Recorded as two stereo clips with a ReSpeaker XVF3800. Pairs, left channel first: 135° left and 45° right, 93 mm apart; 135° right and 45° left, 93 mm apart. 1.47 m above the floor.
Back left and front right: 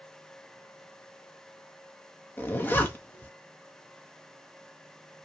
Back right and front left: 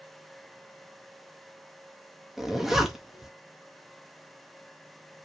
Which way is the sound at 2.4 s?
125° left.